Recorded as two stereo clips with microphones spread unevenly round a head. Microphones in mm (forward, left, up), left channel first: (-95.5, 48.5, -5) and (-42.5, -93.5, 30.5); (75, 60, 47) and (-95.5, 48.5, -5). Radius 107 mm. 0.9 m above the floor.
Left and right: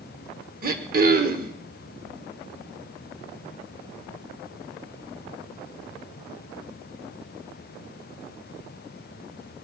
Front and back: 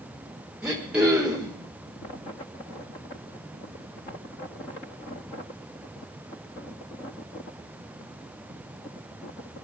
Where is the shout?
I don't hear a shout.